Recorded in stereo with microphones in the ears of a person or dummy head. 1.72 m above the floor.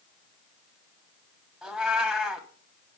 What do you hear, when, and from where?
1.6 s a cat meowing: 5° right (ahead or behind), 2 m